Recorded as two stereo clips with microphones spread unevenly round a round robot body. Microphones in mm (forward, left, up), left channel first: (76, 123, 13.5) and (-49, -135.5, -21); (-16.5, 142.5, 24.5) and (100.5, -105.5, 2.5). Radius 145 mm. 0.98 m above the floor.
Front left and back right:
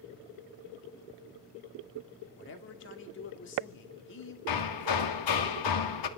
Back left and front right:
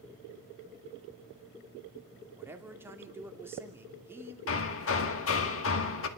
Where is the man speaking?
15° left, 2.5 m.